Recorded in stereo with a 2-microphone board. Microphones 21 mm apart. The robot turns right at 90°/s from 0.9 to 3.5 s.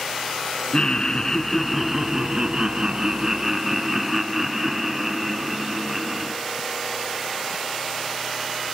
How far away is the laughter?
About 1.4 m.